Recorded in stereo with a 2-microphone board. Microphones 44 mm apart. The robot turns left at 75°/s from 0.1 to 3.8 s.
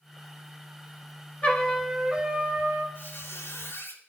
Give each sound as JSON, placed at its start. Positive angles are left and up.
{"t": 1.4, "sound": "a trumpet", "azimuth_deg": 30, "distance_m": 3.0}
{"t": 3.0, "sound": "a squeak", "azimuth_deg": 130, "distance_m": 3.0}